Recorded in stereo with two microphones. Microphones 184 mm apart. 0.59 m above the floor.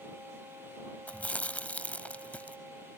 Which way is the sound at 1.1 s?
10° left (ahead or behind).